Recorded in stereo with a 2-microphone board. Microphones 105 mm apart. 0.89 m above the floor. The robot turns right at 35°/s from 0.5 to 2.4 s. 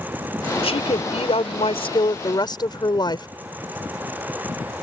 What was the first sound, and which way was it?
A woman speaking, 70° left.